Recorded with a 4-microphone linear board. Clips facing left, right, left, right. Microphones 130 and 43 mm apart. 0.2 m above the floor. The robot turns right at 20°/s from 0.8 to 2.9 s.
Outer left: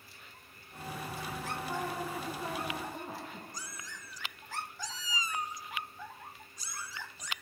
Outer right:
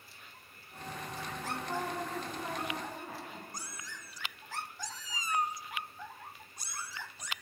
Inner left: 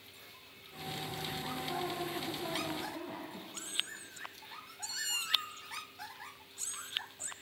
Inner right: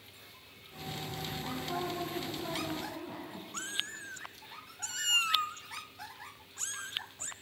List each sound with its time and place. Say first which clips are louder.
1.4 s a woman speaking: outer right 1 dB, inner right 2 dB; 10° right (ahead or behind), 4.5 m; by 3.4 s 20° left (ahead or behind), 4.5 m
3.5 s a cat meowing: even, inner right 3 dB; 55° right (ahead or behind), 0.9 m